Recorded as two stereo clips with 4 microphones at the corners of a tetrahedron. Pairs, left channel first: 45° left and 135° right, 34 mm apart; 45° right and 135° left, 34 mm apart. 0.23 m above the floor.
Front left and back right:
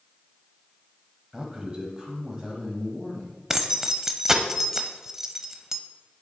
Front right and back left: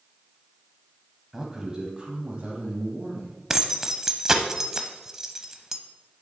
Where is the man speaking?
160° right, 1.0 m; by 3.3 s 165° left, 1.9 m.